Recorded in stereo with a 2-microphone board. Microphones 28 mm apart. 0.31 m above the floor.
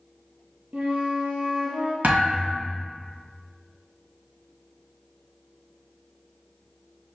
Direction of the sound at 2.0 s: 60° right (ahead or behind).